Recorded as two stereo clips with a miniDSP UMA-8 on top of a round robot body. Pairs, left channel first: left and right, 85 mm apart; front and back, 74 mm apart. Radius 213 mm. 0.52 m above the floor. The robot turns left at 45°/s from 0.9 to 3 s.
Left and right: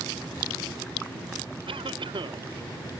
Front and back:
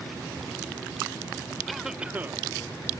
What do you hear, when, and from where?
1.7 s a cough: 90° right; by 2.5 s 125° right